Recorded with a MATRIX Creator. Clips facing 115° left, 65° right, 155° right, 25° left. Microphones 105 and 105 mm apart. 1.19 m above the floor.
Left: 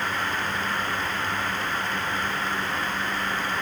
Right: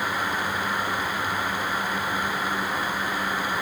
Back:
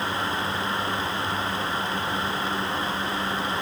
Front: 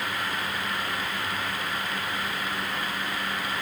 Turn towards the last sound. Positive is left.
No sound to turn to.